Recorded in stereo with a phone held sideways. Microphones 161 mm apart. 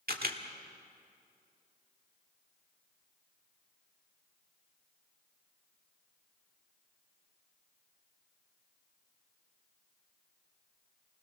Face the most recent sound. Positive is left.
turn(degrees=-70)  # may be behind; listen again after turning